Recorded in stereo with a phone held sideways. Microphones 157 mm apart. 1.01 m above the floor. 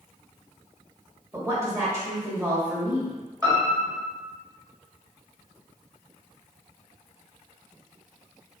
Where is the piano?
25° right (ahead or behind), 1.6 m.